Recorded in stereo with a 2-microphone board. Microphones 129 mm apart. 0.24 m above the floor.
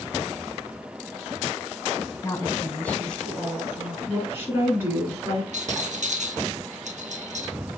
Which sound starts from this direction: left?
A woman speaking, at 2.2 s.